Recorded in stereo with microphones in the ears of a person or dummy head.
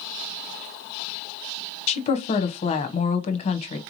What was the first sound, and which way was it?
A woman speaking, 40° left (ahead or behind).